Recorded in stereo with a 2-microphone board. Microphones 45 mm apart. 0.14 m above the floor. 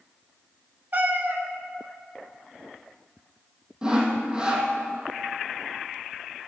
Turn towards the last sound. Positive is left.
turn(degrees=-20)  # may be behind; listen again after turning